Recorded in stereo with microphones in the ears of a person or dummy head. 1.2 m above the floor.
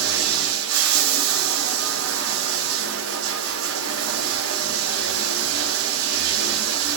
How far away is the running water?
About 0.7 m.